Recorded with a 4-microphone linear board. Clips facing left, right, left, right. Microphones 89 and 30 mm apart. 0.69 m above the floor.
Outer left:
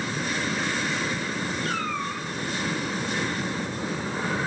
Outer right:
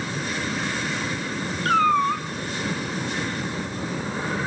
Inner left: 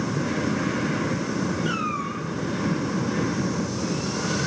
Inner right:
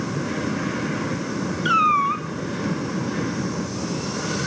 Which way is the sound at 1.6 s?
65° right (ahead or behind).